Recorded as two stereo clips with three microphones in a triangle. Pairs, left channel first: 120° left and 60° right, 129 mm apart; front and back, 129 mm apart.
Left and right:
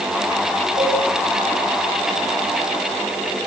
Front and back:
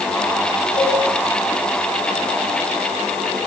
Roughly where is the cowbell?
Ahead right.